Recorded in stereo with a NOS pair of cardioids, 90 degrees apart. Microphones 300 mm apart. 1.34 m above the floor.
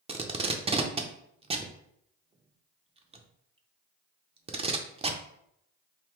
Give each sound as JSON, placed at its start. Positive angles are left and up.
{"t": 0.1, "sound": "tape being pulled", "azimuth_deg": -20, "distance_m": 0.6}